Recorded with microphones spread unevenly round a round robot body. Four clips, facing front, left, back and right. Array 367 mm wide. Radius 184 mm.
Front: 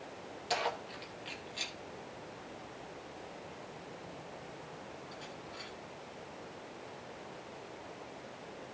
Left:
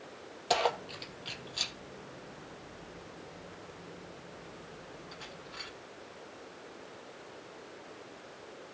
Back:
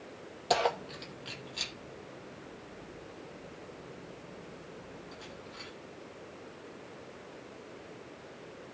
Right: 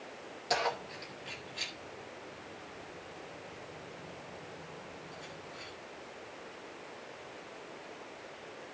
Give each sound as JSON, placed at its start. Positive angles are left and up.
{"t": 0.5, "sound": "keys jangling", "azimuth_deg": 160, "distance_m": 0.8}